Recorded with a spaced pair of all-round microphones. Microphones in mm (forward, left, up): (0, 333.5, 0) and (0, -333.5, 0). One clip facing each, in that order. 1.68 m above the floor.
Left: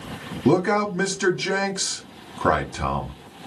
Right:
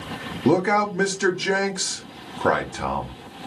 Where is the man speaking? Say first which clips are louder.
Even; 15° left (ahead or behind), 0.6 m.